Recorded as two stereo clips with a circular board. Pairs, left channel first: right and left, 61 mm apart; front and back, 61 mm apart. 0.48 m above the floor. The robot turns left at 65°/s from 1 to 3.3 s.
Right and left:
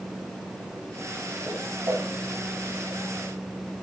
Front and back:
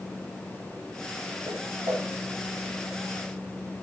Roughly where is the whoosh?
Behind.